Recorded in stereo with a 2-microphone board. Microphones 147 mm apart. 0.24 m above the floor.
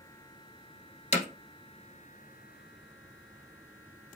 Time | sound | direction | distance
1.1 | hammering | 55° left (ahead or behind) | 1.4 m